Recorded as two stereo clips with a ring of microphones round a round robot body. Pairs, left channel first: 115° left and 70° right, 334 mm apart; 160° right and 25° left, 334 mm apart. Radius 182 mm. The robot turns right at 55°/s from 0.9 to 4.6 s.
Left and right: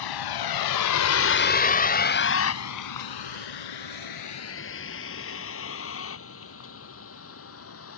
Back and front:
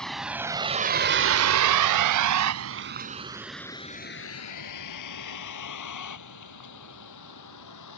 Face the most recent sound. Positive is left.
turn(degrees=165)